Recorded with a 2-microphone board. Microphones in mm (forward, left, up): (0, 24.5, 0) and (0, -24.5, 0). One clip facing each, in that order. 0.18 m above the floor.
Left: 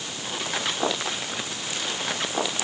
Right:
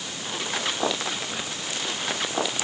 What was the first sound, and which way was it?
Only background noise.